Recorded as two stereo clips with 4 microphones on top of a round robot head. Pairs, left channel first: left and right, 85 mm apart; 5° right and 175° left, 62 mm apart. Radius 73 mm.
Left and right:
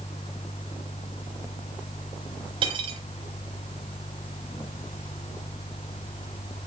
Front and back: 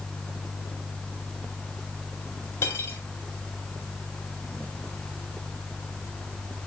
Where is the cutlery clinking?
60° right, 2 m.